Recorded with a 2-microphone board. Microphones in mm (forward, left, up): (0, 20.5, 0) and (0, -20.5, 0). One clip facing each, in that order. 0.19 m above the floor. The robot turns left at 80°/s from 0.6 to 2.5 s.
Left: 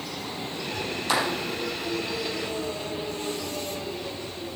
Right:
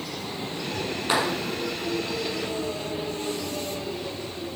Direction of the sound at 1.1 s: 25° right (ahead or behind).